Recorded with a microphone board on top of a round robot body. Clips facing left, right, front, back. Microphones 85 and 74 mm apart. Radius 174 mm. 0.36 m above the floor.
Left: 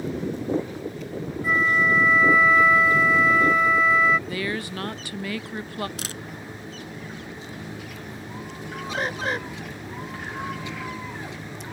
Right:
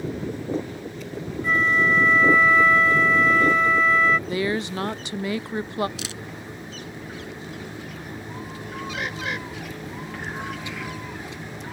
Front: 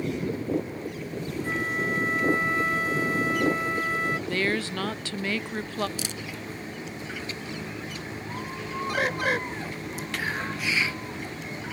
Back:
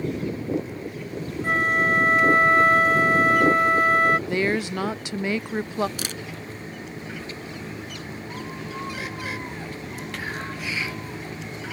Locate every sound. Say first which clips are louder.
1.4 s a flute: right 1 dB, back 8 dB; 175° left
4.3 s a woman speaking: right 4 dB, back 3 dB; 125° right
6.0 s a camera shutter: right 1 dB, back 2 dB; 140° left
8.9 s a bird: left 4 dB, front 6 dB; 35° left